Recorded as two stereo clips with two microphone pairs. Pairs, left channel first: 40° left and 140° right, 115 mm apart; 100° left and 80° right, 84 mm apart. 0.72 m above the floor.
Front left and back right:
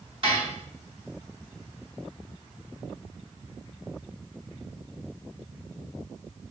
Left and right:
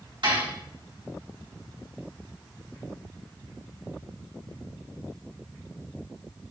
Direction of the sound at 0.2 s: 95° right.